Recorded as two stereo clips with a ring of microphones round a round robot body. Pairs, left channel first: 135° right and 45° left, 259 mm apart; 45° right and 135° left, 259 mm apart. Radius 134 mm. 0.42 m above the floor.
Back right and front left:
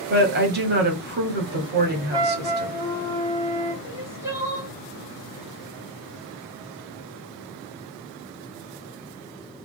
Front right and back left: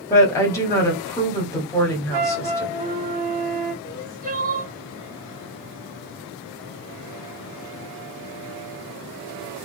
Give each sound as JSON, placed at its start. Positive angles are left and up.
{"t": 0.1, "sound": "a woman speaking", "azimuth_deg": 30, "distance_m": 1.4}
{"t": 2.1, "sound": "a flute", "azimuth_deg": 120, "distance_m": 1.2}
{"t": 3.8, "sound": "crying", "azimuth_deg": 115, "distance_m": 1.4}